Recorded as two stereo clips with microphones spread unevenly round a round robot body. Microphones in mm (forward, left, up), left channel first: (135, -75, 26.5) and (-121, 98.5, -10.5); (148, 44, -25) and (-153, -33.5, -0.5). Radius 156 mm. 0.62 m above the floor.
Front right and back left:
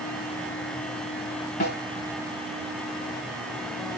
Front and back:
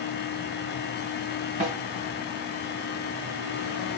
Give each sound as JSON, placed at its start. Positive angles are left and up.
{"t": 1.6, "sound": "a snare drum", "azimuth_deg": -95, "distance_m": 3.0}